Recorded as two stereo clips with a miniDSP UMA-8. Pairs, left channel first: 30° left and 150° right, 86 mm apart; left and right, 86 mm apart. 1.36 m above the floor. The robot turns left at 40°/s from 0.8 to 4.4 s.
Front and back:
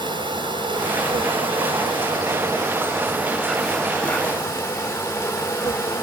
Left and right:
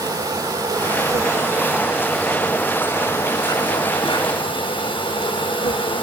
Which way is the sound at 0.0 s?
125° right.